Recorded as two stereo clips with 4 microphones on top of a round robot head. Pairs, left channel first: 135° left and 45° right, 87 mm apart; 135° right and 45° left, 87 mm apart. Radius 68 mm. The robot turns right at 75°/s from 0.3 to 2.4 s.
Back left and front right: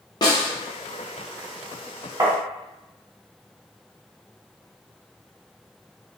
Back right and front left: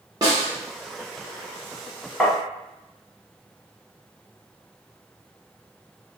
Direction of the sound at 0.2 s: 100° left.